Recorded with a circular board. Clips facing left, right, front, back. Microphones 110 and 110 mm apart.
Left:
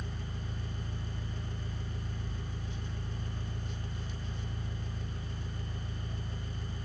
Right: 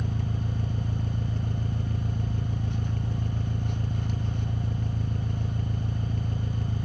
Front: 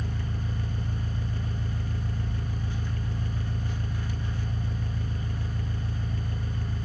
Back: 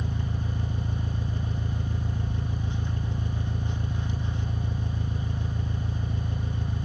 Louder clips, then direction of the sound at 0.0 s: Right 10 dB, back 2 dB; 110° right.